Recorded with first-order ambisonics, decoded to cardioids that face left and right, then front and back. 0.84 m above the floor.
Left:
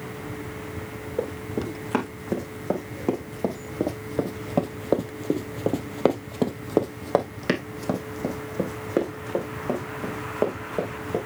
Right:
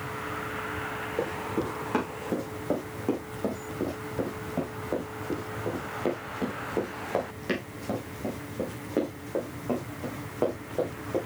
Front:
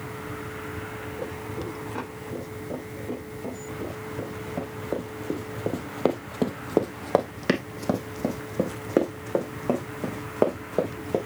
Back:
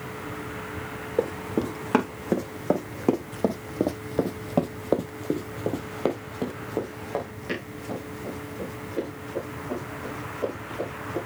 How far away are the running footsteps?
About 2.5 m.